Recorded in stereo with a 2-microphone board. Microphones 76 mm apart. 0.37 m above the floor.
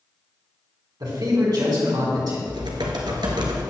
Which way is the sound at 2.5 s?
85° right.